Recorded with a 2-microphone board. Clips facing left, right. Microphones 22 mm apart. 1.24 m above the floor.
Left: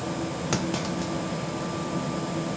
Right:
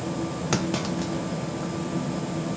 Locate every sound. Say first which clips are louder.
0.5 s a clunk: right 2 dB; 10° right (ahead or behind), 0.8 m